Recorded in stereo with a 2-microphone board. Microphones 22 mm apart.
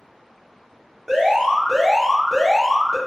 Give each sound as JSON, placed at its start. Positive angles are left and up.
{"t": 1.1, "sound": "an alarm", "side_deg": -20, "distance_m": 1.2}